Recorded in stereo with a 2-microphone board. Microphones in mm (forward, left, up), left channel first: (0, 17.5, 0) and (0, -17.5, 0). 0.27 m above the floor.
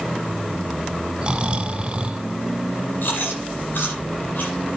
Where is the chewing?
70° left (ahead or behind), 8.5 m.